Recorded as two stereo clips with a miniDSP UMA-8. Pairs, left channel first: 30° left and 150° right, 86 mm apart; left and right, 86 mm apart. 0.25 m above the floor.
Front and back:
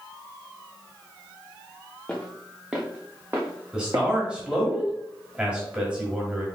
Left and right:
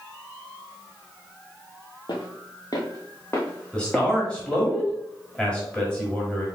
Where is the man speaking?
150° left, 1.3 m.